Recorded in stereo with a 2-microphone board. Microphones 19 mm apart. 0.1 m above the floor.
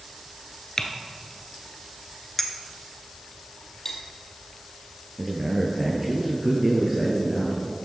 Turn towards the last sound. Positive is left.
turn(degrees=-15)  # may be behind; listen again after turning